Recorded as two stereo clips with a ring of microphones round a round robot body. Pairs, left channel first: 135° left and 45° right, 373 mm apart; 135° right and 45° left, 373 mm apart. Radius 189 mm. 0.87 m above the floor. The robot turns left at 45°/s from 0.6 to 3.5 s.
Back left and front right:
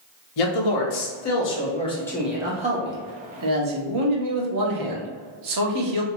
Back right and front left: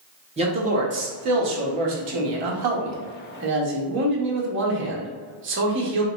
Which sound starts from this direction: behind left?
A man speaking, at 0.4 s.